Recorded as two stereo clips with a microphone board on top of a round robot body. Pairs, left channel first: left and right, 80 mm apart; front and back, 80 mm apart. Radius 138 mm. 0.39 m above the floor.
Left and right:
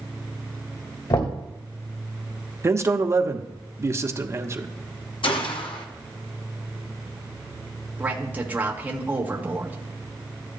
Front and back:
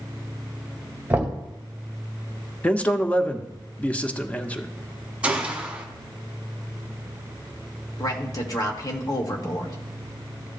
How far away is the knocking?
About 2 m.